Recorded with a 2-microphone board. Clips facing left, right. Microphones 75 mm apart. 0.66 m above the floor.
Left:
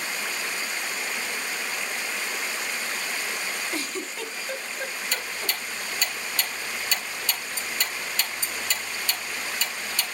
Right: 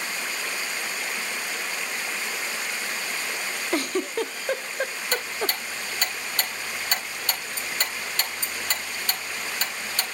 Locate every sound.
3.7 s a giggle: 55° right (ahead or behind), 0.7 m
5.1 s ticking: 50° right (ahead or behind), 2.5 m